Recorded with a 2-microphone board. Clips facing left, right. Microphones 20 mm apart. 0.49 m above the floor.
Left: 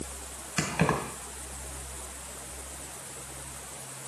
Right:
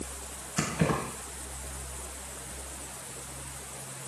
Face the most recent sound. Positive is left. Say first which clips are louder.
# left 1 dB
turn(degrees=55)  # may be behind; listen again after turning